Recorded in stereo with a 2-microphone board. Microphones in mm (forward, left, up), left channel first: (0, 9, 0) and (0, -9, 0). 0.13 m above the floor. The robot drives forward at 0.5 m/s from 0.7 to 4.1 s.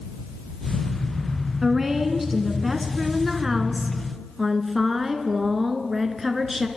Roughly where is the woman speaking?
Centre.